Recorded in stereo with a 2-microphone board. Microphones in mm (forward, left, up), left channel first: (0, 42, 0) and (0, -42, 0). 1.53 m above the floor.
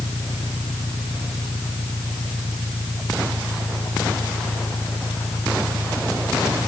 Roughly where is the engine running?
Left.